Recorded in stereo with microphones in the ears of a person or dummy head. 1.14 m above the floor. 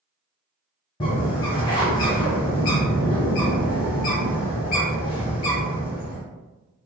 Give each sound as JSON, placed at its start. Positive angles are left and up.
{"t": 1.0, "sound": "a bird", "side_deg": 25, "distance_m": 1.0}